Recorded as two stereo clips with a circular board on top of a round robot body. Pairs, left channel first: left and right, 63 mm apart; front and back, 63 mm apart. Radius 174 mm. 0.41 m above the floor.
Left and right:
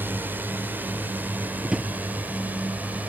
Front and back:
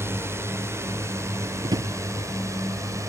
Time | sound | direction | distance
0.0 | a drone | 140° right | ?
1.6 | a drawer | 170° right | ?